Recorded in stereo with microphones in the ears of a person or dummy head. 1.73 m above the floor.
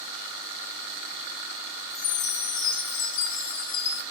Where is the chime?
75° left (ahead or behind), 2.5 m.